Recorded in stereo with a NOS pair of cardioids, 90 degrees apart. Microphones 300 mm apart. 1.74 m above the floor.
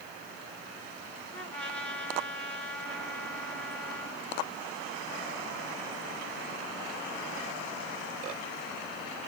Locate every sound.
1.3 s a trumpet: 5° left, 3.5 m